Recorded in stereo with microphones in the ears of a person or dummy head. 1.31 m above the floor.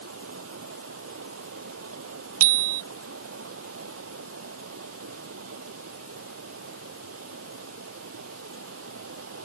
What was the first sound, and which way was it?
Running water, 85° right.